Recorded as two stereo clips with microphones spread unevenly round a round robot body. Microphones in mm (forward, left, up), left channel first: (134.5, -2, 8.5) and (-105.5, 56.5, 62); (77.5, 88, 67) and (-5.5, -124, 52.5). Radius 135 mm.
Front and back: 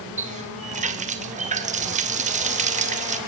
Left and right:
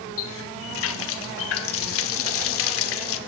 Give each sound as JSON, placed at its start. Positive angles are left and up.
{"t": 0.2, "sound": "a running tap", "azimuth_deg": 100, "distance_m": 1.5}